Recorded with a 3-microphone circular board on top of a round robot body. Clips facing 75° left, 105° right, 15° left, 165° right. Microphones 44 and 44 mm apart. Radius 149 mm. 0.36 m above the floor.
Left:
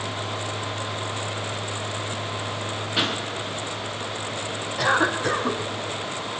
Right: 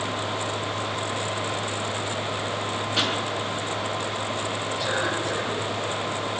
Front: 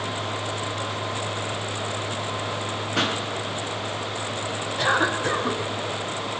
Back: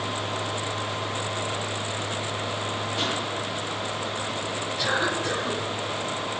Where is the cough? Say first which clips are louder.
Left 7 dB, front 4 dB; 65° left, 5 m.